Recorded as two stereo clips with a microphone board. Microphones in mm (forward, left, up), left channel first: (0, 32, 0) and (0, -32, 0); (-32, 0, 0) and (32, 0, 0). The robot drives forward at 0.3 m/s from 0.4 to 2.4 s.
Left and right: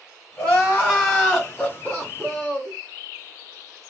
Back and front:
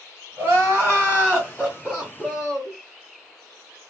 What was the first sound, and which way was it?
Crying, 30° left.